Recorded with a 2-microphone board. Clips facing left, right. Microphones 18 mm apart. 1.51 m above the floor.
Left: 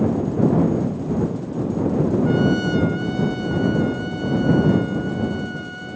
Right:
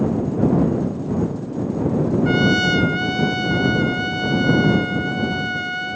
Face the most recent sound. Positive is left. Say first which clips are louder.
# right 2 dB
turn(degrees=-50)  # may be behind; listen again after turning